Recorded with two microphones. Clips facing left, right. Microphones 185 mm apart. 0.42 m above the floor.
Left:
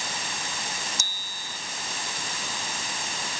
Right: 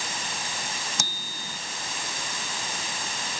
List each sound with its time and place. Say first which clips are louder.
1.0 s a bicycle bell: right 5 dB; 70° right (ahead or behind)